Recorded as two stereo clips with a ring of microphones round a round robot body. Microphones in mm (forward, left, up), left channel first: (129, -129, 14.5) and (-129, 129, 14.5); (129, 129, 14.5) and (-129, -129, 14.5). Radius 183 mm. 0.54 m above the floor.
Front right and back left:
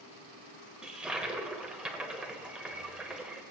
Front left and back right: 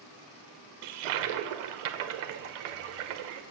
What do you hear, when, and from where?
0.8 s a toilet flushing: 135° right, 0.9 m